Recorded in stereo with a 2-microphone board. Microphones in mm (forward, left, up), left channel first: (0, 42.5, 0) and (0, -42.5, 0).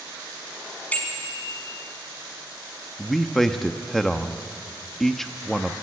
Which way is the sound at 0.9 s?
20° left (ahead or behind).